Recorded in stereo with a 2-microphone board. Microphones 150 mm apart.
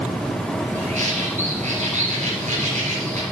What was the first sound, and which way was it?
A bird, 55° right (ahead or behind).